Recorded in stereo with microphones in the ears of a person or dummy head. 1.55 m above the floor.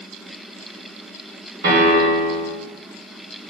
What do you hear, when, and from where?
1.6 s a piano: 50° right (ahead or behind), 3.5 m